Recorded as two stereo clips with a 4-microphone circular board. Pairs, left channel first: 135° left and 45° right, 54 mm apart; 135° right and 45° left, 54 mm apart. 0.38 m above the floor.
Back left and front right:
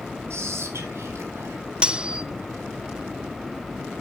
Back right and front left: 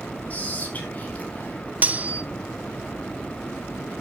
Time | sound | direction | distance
0.3 | whispering | 75° right | 4 m
1.8 | cutlery clinking | 15° left | 0.6 m